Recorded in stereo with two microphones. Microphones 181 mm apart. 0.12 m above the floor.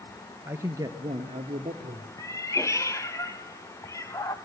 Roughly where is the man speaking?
Centre.